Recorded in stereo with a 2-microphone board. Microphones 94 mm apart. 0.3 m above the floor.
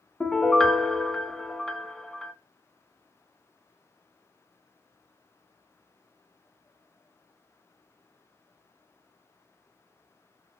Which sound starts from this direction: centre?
A piano, at 0.2 s.